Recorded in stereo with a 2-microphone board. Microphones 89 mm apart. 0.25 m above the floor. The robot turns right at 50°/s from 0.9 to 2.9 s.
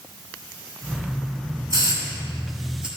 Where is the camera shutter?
I don't hear a camera shutter.